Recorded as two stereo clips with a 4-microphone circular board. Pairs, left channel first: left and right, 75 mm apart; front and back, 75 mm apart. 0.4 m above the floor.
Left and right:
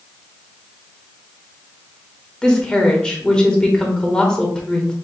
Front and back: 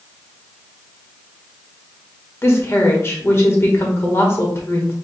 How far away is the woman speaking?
About 1.1 m.